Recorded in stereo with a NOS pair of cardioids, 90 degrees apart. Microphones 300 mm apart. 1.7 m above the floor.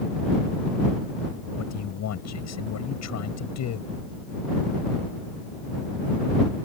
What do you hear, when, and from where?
1.6 s a man speaking: 60° left